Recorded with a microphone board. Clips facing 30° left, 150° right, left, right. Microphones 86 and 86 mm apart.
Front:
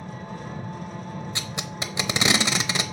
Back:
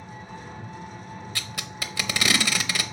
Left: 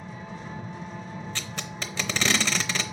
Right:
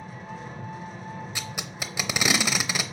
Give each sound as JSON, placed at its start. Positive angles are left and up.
{"t": 0.0, "sound": "an engine running", "azimuth_deg": 0, "distance_m": 2.5}
{"t": 1.4, "sound": "tape being pulled", "azimuth_deg": -15, "distance_m": 0.6}